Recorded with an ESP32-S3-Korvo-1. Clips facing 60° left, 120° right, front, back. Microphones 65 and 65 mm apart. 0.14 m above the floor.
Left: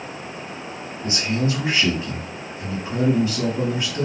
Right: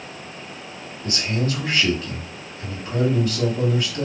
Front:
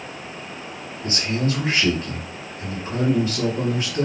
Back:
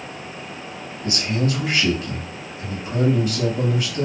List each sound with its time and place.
1.0 s a man speaking: 15° left, 1.9 m